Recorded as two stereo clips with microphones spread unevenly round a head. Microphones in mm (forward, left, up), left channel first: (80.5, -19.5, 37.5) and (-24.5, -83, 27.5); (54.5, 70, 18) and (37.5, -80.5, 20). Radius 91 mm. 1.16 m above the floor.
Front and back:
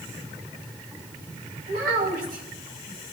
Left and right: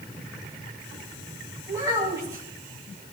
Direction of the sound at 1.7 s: 170° right.